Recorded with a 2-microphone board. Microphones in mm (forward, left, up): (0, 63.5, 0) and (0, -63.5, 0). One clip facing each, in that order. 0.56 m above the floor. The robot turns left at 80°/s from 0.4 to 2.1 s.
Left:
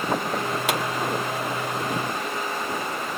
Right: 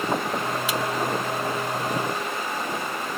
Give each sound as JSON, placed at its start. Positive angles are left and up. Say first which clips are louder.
{"t": 0.7, "sound": "a pop", "louder": "left 4 dB", "side_deg": 60, "distance_m": 2.5}